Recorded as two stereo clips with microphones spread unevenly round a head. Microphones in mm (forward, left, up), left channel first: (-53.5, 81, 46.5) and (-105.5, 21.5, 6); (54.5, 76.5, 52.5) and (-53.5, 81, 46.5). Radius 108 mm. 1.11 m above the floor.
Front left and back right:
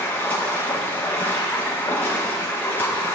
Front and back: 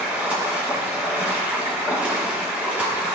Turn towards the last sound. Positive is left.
turn(degrees=100)